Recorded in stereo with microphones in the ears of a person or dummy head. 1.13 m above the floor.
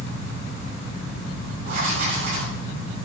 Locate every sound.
1.6 s writing: 40° right (ahead or behind), 9 m